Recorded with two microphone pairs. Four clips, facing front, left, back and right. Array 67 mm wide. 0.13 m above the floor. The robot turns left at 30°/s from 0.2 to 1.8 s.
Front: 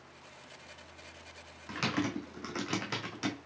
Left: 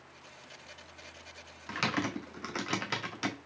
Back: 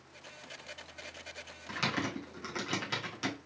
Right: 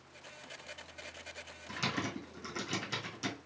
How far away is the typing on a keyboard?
About 1.3 m.